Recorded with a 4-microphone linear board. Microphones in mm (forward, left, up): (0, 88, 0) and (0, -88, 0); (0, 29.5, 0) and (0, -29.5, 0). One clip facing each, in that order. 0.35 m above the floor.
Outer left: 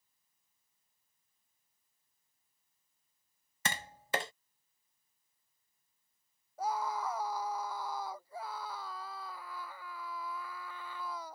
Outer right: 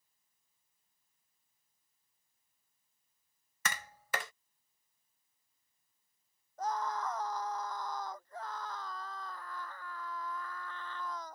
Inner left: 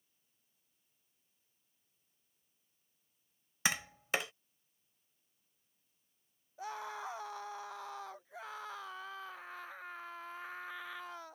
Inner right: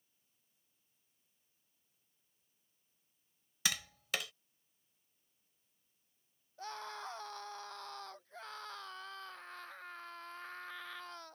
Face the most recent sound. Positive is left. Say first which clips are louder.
# outer left 1 dB, inner left 3 dB
turn(degrees=10)  # may be behind; listen again after turning